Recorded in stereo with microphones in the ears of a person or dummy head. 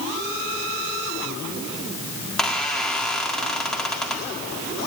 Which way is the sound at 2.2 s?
5° left (ahead or behind).